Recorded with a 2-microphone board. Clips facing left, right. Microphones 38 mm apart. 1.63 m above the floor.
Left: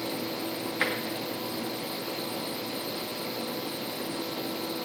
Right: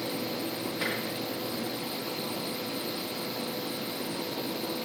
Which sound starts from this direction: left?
Tapping, at 0.8 s.